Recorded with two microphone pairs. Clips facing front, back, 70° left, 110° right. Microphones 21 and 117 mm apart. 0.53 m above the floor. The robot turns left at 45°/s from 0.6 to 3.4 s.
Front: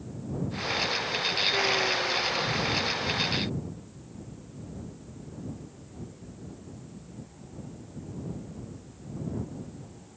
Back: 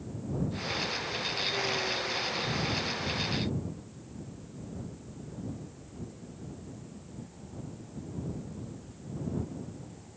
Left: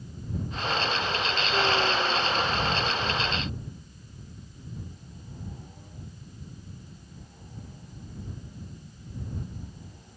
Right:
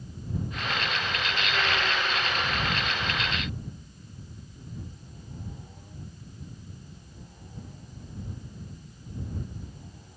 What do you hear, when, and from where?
Only background noise.